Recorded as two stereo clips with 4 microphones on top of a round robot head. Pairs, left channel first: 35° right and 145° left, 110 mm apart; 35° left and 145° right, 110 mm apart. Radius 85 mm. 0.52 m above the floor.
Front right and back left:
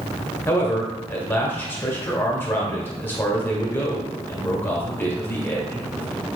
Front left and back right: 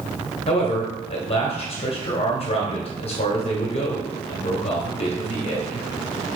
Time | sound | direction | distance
0.5 | a man speaking | 30° left | 1.6 m